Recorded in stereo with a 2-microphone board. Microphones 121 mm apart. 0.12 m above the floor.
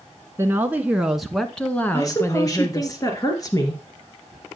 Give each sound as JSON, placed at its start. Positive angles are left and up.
{"t": 0.4, "sound": "a woman speaking", "side_deg": -20, "distance_m": 1.1}
{"t": 1.9, "sound": "a woman speaking", "side_deg": 30, "distance_m": 2.0}